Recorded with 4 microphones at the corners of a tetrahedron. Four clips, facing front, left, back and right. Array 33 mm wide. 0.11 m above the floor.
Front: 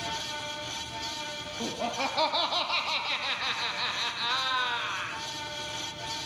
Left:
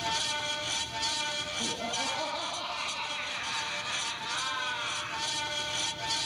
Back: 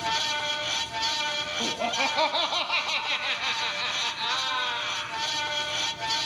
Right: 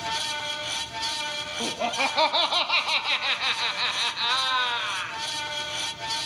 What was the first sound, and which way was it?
Laughter, 110° right.